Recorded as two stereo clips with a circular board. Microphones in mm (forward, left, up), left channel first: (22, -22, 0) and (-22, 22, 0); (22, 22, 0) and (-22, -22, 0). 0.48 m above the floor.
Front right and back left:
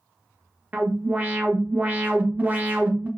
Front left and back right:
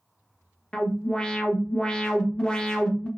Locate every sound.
0.7 s an alarm: 110° left, 0.5 m